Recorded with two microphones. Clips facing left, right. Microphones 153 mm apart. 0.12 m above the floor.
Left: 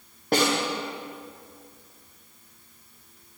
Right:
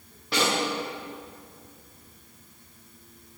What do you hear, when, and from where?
0.3 s a snare drum: 50° left (ahead or behind), 8.5 m